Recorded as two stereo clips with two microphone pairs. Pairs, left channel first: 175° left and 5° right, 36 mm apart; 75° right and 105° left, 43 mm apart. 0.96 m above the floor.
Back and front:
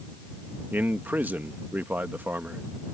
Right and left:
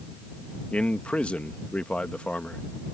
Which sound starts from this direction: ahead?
A man speaking, at 0.7 s.